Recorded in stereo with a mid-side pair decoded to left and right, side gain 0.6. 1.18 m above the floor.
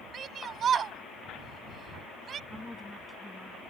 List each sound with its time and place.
0.1 s a shout: 40° right
2.5 s a woman speaking: 10° left